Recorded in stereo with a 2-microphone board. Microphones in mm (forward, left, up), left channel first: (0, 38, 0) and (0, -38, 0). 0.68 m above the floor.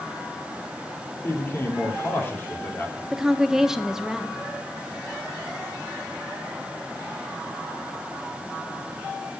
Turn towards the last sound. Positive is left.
turn(degrees=-10)  # may be behind; listen again after turning